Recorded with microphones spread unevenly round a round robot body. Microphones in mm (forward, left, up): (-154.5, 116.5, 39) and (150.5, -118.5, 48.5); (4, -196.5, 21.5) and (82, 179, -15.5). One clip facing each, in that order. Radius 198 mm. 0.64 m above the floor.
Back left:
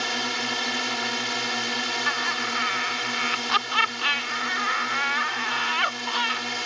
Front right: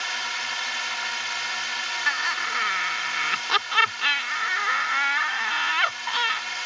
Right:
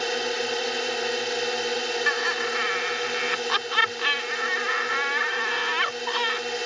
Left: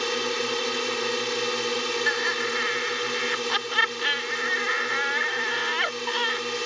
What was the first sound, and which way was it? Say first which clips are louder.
A drone: back left 11 dB, even; 150° left.